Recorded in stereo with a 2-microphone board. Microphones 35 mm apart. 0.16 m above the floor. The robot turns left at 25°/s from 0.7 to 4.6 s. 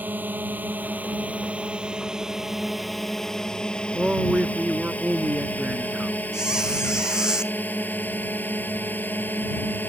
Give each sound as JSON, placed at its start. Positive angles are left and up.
{"t": 0.0, "sound": "a drone", "side_deg": -60}
{"t": 4.0, "sound": "a man speaking", "side_deg": -20}
{"t": 6.3, "sound": "a squeak", "side_deg": -20}